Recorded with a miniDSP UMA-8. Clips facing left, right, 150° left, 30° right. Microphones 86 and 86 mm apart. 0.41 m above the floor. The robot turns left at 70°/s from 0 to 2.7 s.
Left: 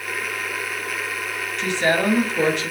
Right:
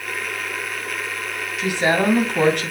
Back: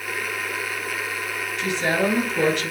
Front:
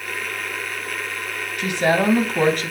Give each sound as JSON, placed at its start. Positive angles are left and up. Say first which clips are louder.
{"t": 1.6, "sound": "a woman speaking", "louder": "right 1 dB, front 4 dB", "azimuth_deg": -5, "distance_m": 3.5}